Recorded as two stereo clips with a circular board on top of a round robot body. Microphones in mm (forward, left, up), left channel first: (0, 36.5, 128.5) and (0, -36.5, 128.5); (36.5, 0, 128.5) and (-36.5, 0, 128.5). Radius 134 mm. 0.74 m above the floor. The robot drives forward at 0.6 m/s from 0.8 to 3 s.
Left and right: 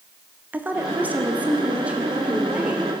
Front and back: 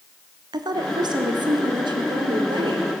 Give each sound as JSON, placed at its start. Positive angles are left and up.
{"t": 0.5, "sound": "a woman speaking", "azimuth_deg": -160, "distance_m": 1.5}